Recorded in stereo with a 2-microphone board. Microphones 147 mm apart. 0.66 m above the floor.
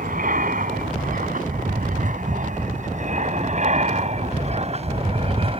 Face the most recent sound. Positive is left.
turn(degrees=-40)  # may be behind; listen again after turning